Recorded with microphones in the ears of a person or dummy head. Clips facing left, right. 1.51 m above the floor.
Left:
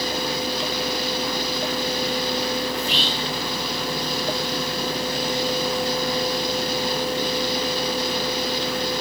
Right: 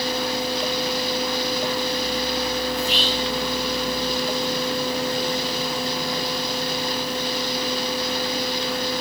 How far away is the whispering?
About 2.5 m.